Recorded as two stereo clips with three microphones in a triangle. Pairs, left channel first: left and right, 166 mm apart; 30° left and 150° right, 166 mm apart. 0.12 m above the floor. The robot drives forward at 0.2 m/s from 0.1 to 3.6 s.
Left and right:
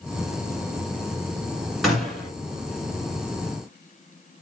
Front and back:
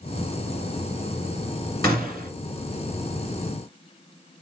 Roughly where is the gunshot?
Ahead.